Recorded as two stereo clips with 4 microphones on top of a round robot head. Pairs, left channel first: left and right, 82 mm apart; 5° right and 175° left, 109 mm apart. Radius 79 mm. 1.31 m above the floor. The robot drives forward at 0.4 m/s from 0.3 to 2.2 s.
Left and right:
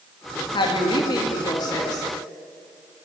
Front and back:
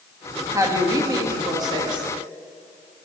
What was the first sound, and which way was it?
A woman speaking, 115° left.